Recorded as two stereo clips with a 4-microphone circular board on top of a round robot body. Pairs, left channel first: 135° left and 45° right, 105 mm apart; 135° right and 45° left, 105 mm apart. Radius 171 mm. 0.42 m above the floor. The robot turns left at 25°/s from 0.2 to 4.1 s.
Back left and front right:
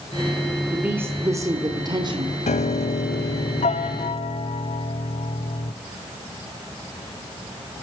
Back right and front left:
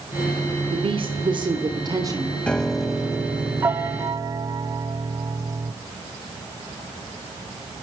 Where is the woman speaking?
30° left, 2 m; by 2.3 s 10° right, 2 m.